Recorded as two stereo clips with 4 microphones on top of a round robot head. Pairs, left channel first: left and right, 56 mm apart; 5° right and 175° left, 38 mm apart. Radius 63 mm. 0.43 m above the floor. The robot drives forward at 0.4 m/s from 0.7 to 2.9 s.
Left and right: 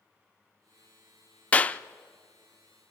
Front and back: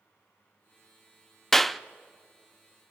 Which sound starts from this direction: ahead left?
A clap, at 1.5 s.